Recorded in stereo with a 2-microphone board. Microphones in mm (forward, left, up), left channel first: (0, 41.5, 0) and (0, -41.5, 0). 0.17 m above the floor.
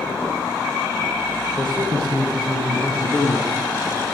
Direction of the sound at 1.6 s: 60° right (ahead or behind).